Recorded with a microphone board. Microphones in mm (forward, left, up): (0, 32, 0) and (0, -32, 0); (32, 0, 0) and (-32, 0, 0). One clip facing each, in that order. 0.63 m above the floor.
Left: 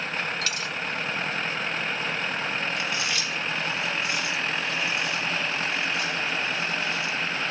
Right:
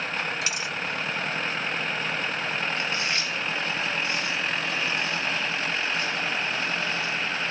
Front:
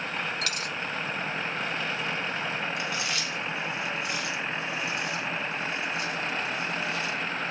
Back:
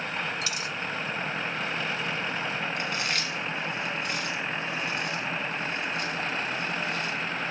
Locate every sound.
0.4 s a dropped coin: 20° right, 1.0 m
2.8 s chewing: 145° right, 5 m